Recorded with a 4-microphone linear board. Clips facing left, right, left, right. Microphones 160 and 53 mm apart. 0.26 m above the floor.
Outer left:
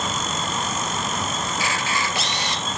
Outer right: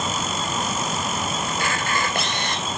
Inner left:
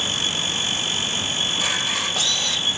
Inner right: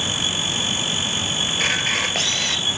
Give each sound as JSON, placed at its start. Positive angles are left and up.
{"t": 1.5, "sound": "a camera shutter", "side_deg": -50, "distance_m": 2.5}